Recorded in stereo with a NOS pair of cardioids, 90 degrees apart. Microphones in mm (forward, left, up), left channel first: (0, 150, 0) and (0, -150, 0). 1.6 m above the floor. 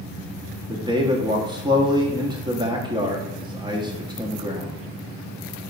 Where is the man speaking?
15° right, 1.1 m.